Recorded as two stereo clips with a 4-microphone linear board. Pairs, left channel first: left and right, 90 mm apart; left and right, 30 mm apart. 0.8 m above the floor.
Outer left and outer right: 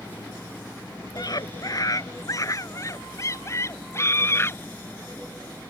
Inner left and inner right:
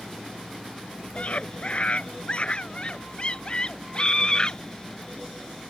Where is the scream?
50° left (ahead or behind); by 4.6 s 30° left (ahead or behind).